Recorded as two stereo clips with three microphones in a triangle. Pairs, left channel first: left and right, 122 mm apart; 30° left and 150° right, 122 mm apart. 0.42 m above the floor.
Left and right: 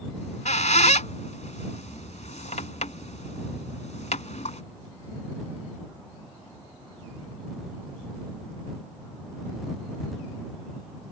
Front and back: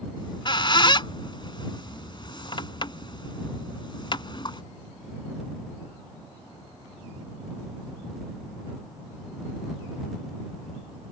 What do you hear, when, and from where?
0.2 s a squeak: 75° left